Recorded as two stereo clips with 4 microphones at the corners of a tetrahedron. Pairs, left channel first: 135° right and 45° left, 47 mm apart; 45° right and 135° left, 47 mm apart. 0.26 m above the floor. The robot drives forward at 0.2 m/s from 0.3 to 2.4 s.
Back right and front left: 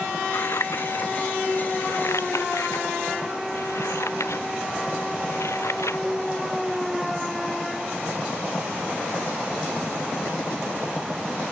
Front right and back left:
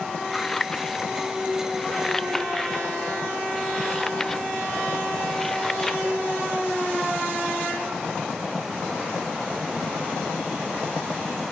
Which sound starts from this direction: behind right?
Scissors, at 0.3 s.